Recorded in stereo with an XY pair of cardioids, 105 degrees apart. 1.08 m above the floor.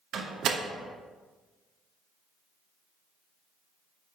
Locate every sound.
0.1 s a door slam: 65° right, 0.9 m